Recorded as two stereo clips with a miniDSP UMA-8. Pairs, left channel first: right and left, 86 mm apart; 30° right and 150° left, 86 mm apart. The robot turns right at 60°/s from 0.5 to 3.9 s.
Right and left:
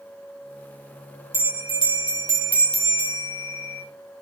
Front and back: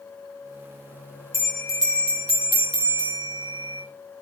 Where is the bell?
90° right, 3.5 m; by 3.8 s 60° left, 3.5 m.